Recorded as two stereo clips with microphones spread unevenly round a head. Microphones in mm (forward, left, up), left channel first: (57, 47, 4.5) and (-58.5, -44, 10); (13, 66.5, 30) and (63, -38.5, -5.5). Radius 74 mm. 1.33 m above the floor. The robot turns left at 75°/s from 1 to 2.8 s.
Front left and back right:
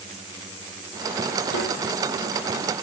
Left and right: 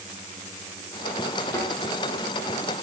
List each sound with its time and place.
1.5 s a snare drum: 45° left, 9 m; by 1.7 s 30° left, 9 m